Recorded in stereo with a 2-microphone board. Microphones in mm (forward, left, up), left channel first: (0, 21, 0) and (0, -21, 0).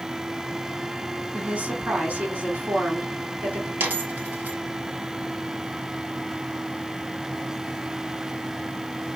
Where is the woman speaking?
40° right (ahead or behind), 2 m.